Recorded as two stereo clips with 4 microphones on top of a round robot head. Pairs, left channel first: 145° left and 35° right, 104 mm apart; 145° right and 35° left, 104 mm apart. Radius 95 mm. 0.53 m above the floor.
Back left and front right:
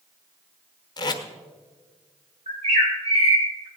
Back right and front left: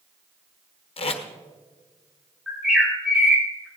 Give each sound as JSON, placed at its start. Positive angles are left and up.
{"t": 1.0, "sound": "tape being pulled", "azimuth_deg": -170, "distance_m": 1.3}
{"t": 2.5, "sound": "a bird", "azimuth_deg": -45, "distance_m": 3.5}